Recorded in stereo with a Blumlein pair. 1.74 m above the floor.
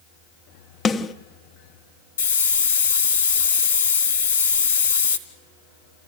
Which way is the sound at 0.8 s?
20° left.